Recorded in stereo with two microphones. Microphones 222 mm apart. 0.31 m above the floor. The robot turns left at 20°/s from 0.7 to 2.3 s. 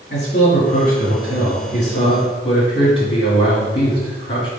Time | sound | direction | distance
0.1 | a man speaking | 60° left | 2 m